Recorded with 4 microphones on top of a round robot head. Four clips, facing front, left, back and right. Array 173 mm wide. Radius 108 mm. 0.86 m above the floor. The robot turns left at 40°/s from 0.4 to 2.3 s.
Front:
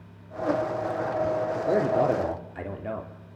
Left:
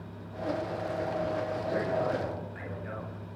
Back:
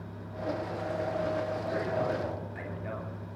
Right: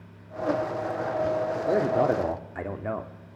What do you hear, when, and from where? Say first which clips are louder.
1.7 s a man speaking: right 8 dB, front 10 dB; 40° right, 2.5 m; by 3.1 s 65° right, 2.5 m